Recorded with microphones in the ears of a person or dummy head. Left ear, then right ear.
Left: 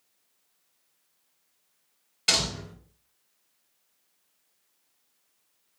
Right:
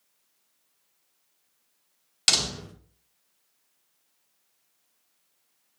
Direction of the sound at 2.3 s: 40° right (ahead or behind).